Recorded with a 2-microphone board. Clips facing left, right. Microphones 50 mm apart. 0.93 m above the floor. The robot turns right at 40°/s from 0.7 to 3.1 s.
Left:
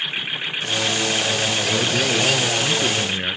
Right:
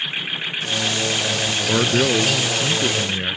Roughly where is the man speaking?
Ahead right.